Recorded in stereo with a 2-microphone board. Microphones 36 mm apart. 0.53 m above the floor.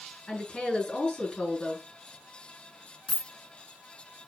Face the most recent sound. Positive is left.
turn(degrees=20)  # may be behind; listen again after turning